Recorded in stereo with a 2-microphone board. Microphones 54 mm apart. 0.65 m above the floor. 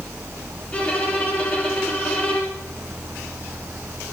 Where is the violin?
25° left (ahead or behind), 5.5 m.